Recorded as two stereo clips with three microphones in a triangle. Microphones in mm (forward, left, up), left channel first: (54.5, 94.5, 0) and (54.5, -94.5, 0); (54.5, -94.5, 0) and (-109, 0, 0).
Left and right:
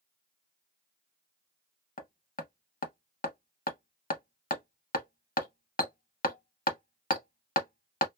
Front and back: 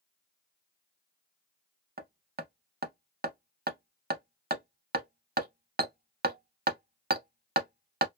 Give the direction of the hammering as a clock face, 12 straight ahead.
8 o'clock.